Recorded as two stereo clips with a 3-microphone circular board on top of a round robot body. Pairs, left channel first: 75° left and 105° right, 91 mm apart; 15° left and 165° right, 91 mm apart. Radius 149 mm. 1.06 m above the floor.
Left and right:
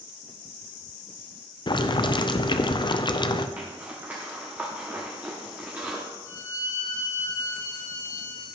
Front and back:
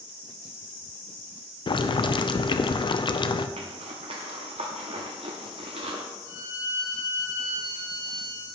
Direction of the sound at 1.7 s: 45° left.